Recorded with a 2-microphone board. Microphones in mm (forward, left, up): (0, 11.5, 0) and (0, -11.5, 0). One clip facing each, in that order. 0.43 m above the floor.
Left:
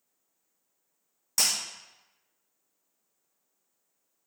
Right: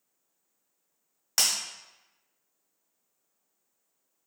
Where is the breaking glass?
55° right (ahead or behind), 1.2 m.